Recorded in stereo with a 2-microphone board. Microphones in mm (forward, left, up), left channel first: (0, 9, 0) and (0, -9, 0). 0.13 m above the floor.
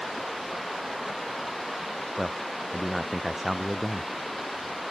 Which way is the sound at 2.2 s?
15° right (ahead or behind).